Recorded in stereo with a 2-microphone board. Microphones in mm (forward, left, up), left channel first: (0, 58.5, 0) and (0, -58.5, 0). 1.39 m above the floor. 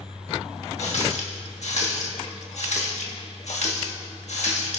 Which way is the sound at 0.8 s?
70° left (ahead or behind).